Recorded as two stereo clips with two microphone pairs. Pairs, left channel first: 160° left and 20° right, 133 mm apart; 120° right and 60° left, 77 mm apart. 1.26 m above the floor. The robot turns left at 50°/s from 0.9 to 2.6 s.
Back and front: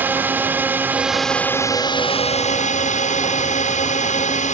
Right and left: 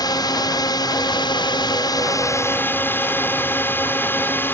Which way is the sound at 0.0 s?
100° right.